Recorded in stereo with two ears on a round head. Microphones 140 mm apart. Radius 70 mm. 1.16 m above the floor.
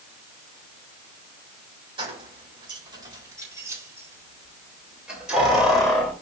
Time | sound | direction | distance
2.0 | keys jangling | 35° right (ahead or behind) | 4 m